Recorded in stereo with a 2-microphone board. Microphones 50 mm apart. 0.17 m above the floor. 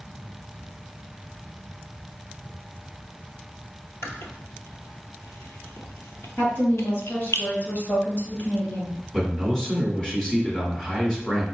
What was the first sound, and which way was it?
Chewing, 80° left.